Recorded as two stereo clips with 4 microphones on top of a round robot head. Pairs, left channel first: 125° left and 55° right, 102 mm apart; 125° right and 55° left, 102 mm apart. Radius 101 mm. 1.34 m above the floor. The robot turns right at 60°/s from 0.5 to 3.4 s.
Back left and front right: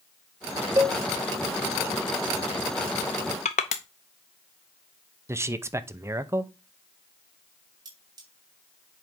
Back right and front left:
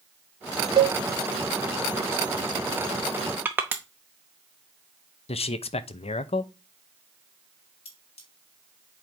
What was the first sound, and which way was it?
A cowbell, 10° left.